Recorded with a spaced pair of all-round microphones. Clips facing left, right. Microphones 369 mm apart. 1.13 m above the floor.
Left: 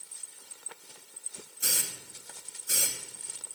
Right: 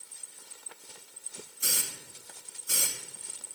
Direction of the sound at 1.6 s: 5° right (ahead or behind).